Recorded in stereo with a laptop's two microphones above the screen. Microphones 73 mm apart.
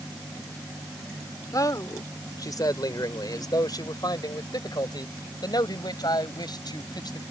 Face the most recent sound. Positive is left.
turn(degrees=75)  # may be behind; listen again after turning